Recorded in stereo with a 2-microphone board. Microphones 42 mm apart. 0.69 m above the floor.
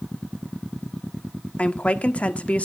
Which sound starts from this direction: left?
A woman speaking, at 1.6 s.